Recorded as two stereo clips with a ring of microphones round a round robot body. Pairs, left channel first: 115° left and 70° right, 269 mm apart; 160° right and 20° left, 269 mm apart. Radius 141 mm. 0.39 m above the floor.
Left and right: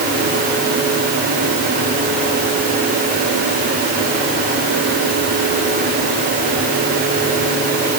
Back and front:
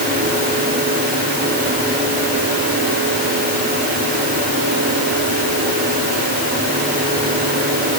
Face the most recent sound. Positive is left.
No sound to turn to.